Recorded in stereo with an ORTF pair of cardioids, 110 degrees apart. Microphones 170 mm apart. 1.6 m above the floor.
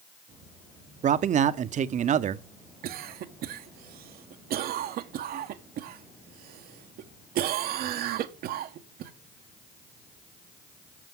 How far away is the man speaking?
About 0.8 m.